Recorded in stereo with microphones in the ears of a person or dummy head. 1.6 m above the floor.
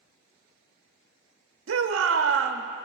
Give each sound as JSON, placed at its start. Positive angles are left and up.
{"t": 1.7, "sound": "a shout", "side_deg": -85, "distance_m": 0.8}